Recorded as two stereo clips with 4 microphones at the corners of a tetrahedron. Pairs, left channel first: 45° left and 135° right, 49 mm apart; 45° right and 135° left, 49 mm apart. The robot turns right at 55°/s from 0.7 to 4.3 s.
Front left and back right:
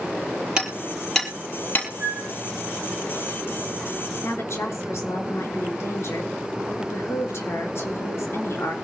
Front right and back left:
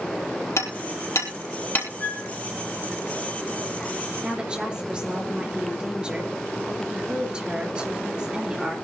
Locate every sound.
0.6 s hammering: 65° right, 4.5 m; by 1.9 s straight ahead, 4.5 m
2.0 s a flute: 95° right, 4 m; by 2.4 s 75° right, 4 m
4.2 s a woman speaking: 60° left, 4 m; by 8.8 s 65° left, 4 m